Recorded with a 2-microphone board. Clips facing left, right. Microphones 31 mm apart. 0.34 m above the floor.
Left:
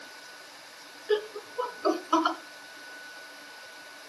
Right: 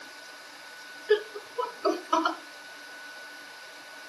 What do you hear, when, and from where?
1.1 s laughter: 15° right (ahead or behind), 3.5 m; by 2.4 s 5° left (ahead or behind), 3 m